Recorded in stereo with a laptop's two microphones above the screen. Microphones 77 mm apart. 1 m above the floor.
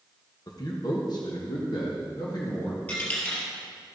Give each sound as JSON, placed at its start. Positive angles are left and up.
{"t": 0.5, "sound": "a man speaking", "side_deg": 50, "distance_m": 1.1}
{"t": 2.9, "sound": "a dropped coin", "side_deg": 20, "distance_m": 2.5}